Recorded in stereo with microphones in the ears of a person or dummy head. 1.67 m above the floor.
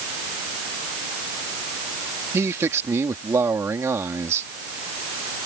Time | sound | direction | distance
2.3 | a man speaking | 20° right (ahead or behind) | ?